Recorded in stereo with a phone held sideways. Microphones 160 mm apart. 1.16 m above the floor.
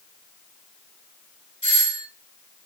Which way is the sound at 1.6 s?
45° left (ahead or behind).